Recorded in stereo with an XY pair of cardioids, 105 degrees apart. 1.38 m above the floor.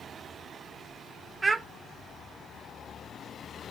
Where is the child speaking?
30° right, 0.8 m.